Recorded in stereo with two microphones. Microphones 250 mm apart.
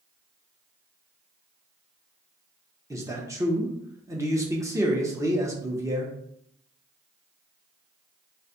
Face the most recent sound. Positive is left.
turn(degrees=-10)  # may be behind; listen again after turning